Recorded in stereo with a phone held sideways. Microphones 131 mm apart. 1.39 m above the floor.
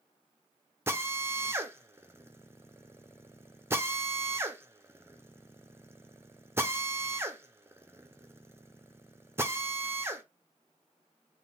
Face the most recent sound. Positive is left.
turn(degrees=-20)  # may be behind; listen again after turning